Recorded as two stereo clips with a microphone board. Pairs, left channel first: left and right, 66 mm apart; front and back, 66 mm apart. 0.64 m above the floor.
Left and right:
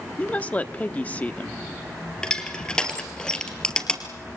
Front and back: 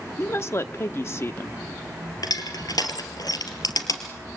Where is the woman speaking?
30° left, 1.0 m.